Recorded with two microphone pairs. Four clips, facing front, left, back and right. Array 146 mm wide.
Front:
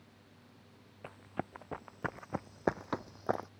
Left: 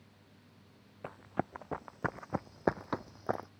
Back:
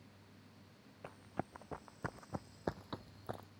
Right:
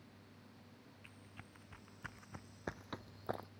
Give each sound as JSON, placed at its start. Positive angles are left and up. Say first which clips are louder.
{"t": 1.0, "sound": "running footsteps", "louder": "left 26 dB, front 3 dB", "azimuth_deg": 80}